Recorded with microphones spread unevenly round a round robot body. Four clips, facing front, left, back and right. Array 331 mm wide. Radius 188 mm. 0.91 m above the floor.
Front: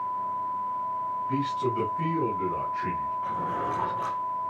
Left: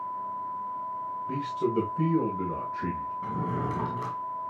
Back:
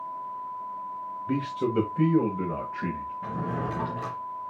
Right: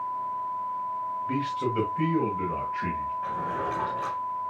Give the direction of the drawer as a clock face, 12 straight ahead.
7 o'clock.